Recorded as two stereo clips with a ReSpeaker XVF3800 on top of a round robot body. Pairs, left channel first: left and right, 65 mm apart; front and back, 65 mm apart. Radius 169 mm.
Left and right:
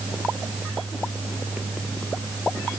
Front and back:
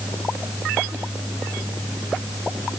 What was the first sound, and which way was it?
Only background noise.